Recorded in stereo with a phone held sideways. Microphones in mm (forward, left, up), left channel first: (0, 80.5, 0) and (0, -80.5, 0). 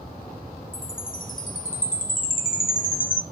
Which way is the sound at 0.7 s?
60° left (ahead or behind).